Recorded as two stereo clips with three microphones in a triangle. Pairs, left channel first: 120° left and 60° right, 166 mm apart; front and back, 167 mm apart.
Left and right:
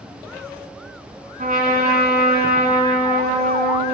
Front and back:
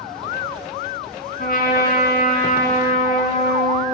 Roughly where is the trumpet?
Ahead right.